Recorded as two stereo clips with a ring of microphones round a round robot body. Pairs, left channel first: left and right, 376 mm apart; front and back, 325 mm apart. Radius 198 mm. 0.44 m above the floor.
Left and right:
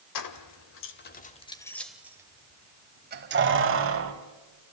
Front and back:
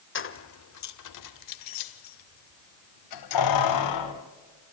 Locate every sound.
0.1 s keys jangling: 55° left, 1.4 m; by 4.1 s 35° right, 2 m